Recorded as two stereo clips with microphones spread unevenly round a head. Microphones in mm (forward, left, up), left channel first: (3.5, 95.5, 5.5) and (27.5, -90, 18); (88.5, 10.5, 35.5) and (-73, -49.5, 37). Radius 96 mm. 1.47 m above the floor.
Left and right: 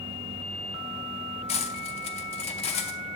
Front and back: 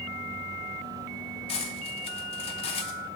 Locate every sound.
1.5 s cutlery clinking: 60° left, 0.7 m